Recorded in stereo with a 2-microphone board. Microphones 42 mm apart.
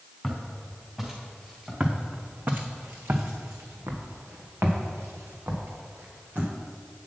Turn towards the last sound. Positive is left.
turn(degrees=-65)  # may be behind; listen again after turning